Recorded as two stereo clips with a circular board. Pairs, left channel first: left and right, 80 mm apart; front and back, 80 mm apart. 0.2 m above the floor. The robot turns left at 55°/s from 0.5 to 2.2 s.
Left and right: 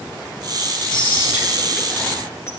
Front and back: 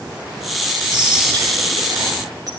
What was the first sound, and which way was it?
Whispering, 145° right.